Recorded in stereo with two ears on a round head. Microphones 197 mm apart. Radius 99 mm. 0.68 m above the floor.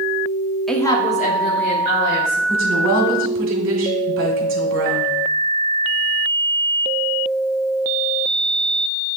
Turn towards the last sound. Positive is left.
turn(degrees=-65)  # may be behind; listen again after turning